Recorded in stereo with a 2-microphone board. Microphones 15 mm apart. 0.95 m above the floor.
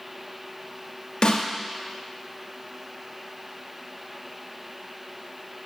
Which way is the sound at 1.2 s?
75° left (ahead or behind).